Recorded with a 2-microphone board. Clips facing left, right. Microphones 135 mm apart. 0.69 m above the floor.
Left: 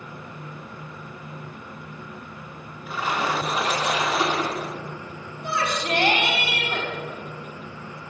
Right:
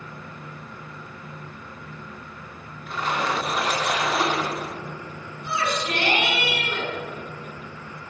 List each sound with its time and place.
2.9 s a splash: 5° left (ahead or behind), 1.9 m
5.4 s a shout: 55° left (ahead or behind), 4 m